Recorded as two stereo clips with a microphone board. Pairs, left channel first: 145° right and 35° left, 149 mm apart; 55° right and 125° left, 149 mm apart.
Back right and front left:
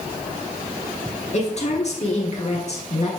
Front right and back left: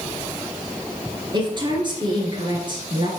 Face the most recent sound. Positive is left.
turn(degrees=180)